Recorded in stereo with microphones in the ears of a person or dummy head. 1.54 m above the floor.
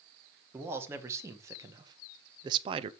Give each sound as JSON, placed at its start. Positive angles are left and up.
{"t": 0.5, "sound": "a man speaking", "side_deg": -20, "distance_m": 1.8}